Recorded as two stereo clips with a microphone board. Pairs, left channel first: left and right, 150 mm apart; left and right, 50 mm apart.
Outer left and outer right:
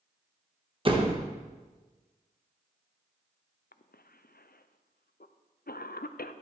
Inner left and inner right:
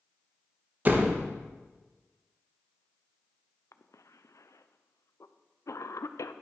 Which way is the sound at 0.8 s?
35° right (ahead or behind).